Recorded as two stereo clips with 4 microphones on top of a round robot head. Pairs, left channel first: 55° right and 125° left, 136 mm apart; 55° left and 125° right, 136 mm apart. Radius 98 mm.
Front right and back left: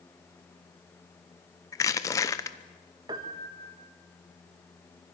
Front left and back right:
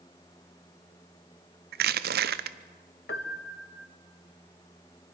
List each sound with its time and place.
1.7 s crushing: 125° right, 0.8 m
3.1 s a piano: 65° left, 1.2 m